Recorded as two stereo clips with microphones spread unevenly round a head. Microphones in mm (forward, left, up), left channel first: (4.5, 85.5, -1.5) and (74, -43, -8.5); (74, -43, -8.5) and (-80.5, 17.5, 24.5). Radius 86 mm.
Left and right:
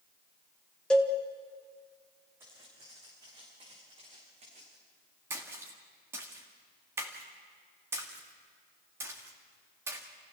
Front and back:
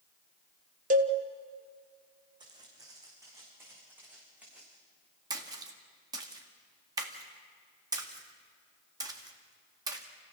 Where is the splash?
135° right, 1.9 m.